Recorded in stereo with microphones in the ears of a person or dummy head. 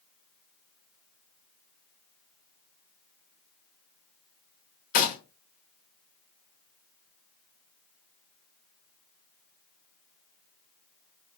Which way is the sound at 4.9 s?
50° left (ahead or behind).